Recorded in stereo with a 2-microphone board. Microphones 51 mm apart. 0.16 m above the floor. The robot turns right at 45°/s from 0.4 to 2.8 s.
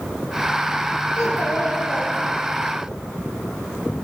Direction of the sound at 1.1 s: 85° left.